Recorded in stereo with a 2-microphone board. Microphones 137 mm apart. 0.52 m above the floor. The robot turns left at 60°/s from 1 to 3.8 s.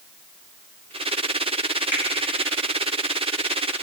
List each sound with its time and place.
1.9 s a finger snap: 15° right (ahead or behind), 3 m; by 2.0 s 10° right (ahead or behind), 3 m